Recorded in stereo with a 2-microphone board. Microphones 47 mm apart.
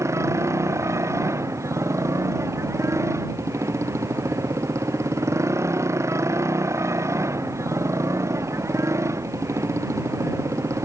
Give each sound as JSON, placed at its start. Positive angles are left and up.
{"t": 0.0, "sound": "a motorcycle", "side_deg": -75}